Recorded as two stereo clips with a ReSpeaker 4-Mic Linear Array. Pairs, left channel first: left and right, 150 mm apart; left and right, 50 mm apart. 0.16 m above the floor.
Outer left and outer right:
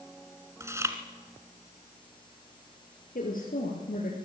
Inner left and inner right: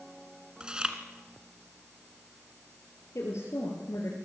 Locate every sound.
0.6 s chewing: 20° right (ahead or behind), 1.7 m
3.1 s a woman speaking: 70° left (ahead or behind), 3.5 m